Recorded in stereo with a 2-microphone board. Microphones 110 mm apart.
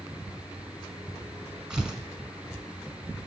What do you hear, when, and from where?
1.7 s tearing paper: 5° right (ahead or behind), 0.9 m